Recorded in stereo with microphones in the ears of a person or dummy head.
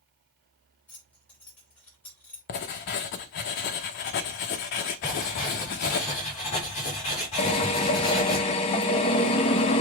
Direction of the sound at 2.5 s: 45° left (ahead or behind).